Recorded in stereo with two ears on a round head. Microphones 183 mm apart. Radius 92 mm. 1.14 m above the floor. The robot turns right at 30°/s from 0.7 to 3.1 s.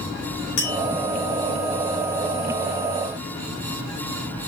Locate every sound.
0.6 s tapping: 70° left (ahead or behind), 3.5 m; by 0.8 s 75° left (ahead or behind), 3.5 m